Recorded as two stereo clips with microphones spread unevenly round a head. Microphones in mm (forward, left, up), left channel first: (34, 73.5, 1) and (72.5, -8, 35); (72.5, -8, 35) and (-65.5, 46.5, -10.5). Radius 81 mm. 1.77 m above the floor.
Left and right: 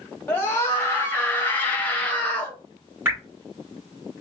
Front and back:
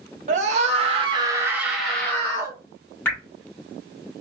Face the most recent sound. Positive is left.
turn(degrees=-65)